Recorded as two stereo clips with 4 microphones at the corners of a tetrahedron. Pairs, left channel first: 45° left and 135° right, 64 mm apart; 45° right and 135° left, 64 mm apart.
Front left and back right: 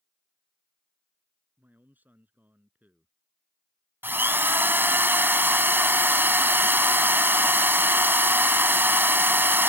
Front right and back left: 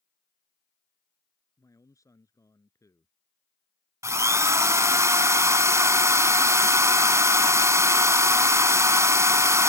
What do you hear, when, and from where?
1.6 s a man speaking: 75° right
4.0 s a drill: 170° left